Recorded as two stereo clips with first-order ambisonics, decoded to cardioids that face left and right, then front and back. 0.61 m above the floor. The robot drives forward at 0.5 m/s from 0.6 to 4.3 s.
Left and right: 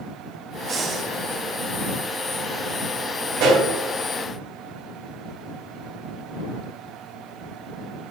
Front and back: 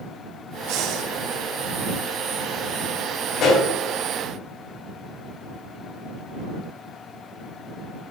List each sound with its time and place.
0.7 s breathing: 155° right, 0.9 m; by 1.1 s 160° right, 1.1 m
3.4 s a pop: 50° right, 3 m